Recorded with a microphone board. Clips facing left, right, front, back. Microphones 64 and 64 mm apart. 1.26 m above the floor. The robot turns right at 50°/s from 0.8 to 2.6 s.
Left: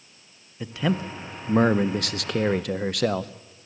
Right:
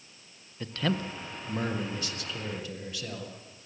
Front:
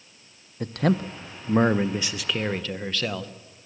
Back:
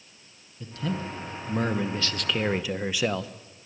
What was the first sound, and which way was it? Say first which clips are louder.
A man speaking: left 4 dB, front 8 dB; 10° left.